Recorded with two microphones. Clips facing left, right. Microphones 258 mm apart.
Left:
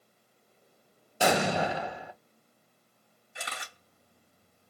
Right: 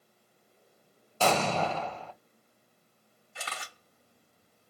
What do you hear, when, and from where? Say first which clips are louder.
1.2 s an explosion: left 1 dB; 15° left (ahead or behind), 0.5 m
3.4 s a camera shutter: even; 20° left (ahead or behind), 3 m